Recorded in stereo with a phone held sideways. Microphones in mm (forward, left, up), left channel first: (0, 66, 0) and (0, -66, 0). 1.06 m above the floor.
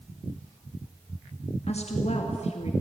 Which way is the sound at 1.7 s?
55° left (ahead or behind).